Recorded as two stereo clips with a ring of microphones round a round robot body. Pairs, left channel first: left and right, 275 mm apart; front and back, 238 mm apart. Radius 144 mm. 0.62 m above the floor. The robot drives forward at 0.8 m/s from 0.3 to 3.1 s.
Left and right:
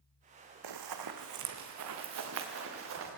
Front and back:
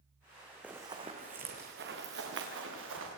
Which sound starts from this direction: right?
Running footsteps, at 0.6 s.